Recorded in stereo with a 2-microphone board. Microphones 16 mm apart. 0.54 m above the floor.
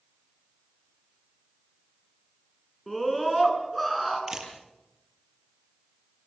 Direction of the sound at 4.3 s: 40° right (ahead or behind).